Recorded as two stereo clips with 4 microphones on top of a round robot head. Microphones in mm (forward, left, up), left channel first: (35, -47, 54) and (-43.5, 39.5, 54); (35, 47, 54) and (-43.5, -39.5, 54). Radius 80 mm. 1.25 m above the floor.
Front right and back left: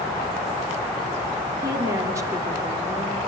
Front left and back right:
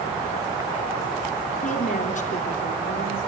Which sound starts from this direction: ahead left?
A woman speaking, at 1.6 s.